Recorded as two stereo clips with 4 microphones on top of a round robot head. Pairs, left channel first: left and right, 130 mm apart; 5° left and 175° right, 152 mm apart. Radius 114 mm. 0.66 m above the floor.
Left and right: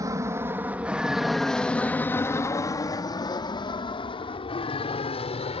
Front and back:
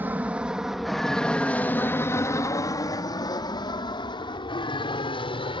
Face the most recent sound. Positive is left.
turn(degrees=60)